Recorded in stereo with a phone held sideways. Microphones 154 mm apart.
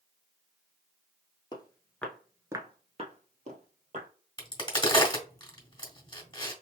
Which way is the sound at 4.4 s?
30° left (ahead or behind).